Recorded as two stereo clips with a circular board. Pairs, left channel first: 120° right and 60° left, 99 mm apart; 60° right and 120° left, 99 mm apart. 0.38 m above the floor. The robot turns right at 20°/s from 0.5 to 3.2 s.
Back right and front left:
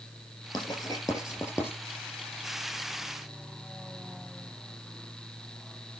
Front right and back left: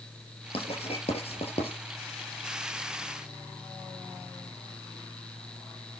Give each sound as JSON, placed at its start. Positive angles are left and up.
{"t": 0.5, "sound": "writing", "azimuth_deg": -75, "distance_m": 8.5}